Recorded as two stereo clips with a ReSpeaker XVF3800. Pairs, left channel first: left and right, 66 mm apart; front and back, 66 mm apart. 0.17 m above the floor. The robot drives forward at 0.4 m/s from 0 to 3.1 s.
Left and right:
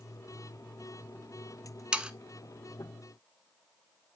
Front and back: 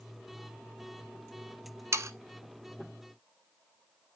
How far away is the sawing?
About 0.7 m.